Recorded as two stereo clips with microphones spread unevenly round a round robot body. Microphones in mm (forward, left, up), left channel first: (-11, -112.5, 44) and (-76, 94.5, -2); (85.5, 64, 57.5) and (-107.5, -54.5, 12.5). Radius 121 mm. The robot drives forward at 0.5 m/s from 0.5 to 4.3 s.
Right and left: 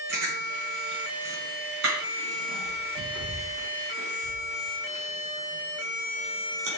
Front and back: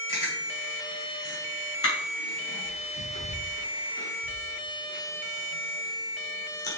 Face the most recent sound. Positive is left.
turn(degrees=80)